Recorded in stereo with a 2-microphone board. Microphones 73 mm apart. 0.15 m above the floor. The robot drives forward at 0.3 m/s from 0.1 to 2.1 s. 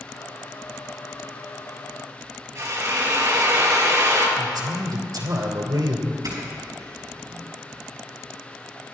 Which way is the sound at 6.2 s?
55° right (ahead or behind).